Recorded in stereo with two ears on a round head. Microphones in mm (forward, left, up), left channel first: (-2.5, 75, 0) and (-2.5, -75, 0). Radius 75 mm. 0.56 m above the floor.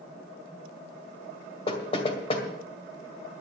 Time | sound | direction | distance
1.7 | knocking | 35° left (ahead or behind) | 1.9 m